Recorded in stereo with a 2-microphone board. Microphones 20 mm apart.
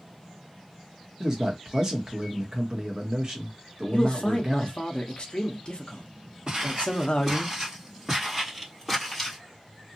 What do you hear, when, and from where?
1.2 s a man speaking: 25° right (ahead or behind), 1.2 m
3.9 s a man speaking: 50° left (ahead or behind), 0.8 m
6.5 s footsteps: 25° right (ahead or behind), 1.8 m; by 9.4 s 10° left (ahead or behind), 2 m